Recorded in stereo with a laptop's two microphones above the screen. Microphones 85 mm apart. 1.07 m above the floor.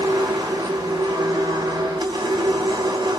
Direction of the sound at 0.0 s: 50° right (ahead or behind).